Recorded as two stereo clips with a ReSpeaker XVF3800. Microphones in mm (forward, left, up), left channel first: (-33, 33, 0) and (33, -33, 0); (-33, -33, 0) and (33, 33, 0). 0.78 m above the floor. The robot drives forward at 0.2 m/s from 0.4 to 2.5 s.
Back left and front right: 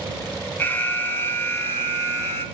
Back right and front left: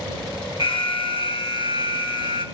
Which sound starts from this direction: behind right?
An alarm, at 0.6 s.